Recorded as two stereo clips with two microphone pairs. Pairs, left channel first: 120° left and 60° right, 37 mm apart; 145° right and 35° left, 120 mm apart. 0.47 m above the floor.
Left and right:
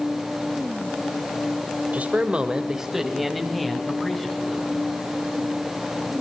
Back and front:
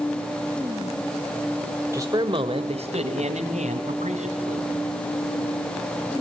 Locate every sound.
1.9 s a man speaking: 30° right, 1.6 m; by 4.7 s 45° left, 4.5 m